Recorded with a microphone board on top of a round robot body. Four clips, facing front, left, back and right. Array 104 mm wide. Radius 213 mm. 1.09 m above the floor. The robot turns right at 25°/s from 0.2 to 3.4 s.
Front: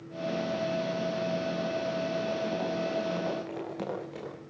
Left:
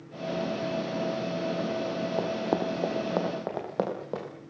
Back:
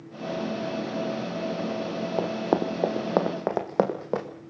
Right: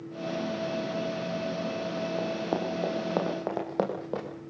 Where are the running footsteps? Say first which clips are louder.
Left 3 dB, back 5 dB; 160° left, 2.5 m; by 4.3 s straight behind, 3.5 m.